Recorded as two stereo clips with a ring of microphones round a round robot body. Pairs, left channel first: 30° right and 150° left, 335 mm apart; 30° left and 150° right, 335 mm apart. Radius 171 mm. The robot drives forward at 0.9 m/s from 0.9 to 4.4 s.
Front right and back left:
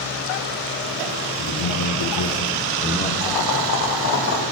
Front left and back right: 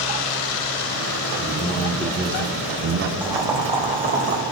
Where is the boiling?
65° right, 2.5 m; by 4.4 s 90° right, 2 m.